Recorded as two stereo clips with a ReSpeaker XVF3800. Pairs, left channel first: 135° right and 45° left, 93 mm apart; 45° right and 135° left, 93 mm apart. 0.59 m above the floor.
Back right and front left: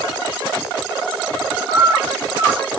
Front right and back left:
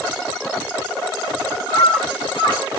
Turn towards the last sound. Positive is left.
turn(degrees=-80)